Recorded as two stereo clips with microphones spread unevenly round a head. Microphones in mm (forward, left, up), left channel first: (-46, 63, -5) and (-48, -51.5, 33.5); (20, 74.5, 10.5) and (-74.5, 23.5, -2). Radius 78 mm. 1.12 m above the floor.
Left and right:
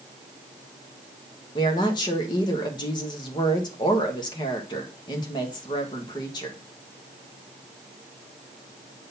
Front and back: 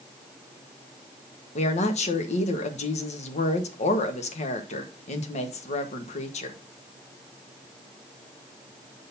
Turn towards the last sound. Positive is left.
turn(degrees=40)